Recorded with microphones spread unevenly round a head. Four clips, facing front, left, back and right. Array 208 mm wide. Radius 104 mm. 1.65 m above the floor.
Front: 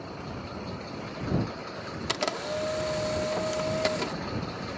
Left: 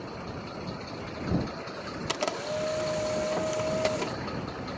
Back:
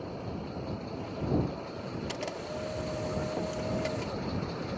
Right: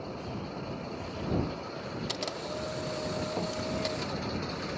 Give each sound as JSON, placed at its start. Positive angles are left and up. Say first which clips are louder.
{"t": 2.1, "sound": "a camera shutter", "louder": "left 10 dB, front 6 dB", "azimuth_deg": 45}